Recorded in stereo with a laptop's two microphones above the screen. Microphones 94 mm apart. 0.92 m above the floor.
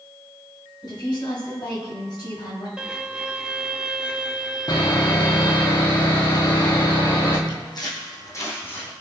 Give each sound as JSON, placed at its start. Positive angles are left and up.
{"t": 0.8, "sound": "a woman speaking", "side_deg": 50, "distance_m": 6.5}
{"t": 2.8, "sound": "a violin", "side_deg": -10, "distance_m": 0.8}
{"t": 4.7, "sound": "sawing", "side_deg": 45, "distance_m": 2.0}
{"t": 7.5, "sound": "footsteps", "side_deg": 50, "distance_m": 3.0}